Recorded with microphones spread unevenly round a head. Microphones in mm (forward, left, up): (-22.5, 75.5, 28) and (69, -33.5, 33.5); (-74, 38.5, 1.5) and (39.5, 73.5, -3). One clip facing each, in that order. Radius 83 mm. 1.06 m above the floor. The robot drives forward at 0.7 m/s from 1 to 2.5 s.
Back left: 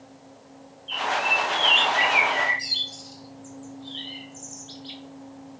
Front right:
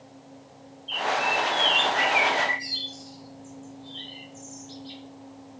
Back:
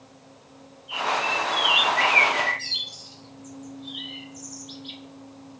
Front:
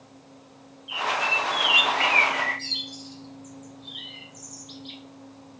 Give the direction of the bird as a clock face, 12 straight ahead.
11 o'clock.